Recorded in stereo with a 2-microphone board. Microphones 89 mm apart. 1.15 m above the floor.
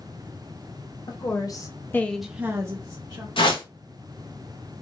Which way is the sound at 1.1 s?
45° left (ahead or behind).